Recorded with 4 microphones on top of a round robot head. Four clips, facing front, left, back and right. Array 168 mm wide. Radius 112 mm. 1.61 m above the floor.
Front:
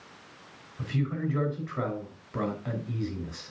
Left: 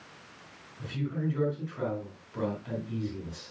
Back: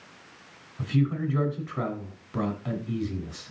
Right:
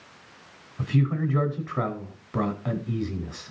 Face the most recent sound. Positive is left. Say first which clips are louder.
# right 7 dB, back 4 dB
turn(degrees=-105)